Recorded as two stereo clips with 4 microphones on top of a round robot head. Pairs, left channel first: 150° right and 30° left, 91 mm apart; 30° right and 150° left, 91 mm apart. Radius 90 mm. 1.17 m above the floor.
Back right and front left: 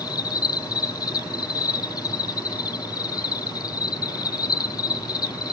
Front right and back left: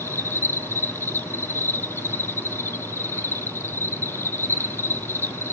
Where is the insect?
100° right, 0.7 m.